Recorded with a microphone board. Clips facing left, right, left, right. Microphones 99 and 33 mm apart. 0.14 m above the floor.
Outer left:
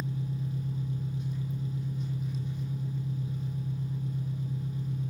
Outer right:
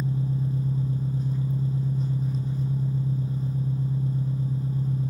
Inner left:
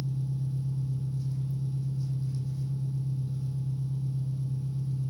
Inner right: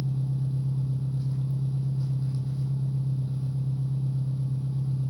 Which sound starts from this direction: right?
An engine running, at 0.0 s.